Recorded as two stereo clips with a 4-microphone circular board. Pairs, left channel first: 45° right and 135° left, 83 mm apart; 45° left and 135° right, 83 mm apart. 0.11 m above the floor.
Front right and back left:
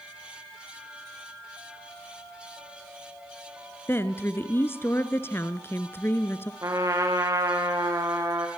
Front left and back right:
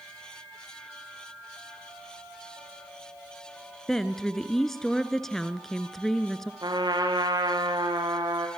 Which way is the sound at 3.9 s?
35° right.